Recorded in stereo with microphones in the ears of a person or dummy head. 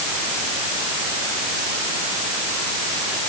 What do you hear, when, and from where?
Only background noise.